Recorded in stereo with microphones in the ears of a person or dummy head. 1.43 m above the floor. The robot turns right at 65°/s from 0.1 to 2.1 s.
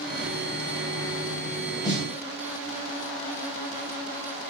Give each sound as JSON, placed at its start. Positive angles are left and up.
{"t": 1.8, "sound": "a snare drum", "side_deg": -15, "distance_m": 0.9}